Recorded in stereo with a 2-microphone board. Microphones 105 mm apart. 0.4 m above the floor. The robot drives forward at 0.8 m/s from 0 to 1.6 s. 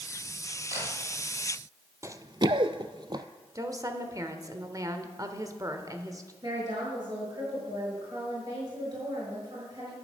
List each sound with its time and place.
0.7 s a camera shutter: 30° right (ahead or behind), 6.5 m
2.0 s running footsteps: 25° right (ahead or behind), 0.6 m; by 3.2 s 35° right (ahead or behind), 0.7 m
3.5 s a woman speaking: 30° right (ahead or behind), 1.0 m
6.4 s a woman speaking: 40° right (ahead or behind), 6 m